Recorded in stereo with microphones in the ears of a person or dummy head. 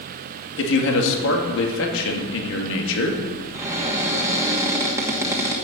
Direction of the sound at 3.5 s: 15° right (ahead or behind).